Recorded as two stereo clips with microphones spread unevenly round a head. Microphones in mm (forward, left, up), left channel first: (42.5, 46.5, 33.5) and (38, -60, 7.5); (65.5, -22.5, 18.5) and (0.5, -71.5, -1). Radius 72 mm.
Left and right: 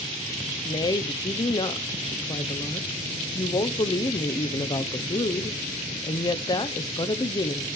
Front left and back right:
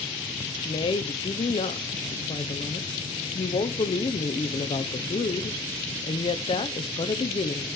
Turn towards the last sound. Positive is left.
turn(degrees=40)